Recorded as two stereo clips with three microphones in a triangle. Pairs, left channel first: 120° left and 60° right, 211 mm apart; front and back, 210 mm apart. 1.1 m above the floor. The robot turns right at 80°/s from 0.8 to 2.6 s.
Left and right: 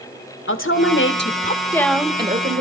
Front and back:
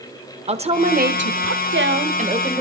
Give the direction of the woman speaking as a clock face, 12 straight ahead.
8 o'clock.